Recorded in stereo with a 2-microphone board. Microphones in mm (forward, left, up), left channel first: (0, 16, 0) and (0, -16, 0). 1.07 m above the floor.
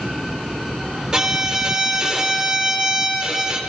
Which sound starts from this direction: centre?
A violin, at 1.1 s.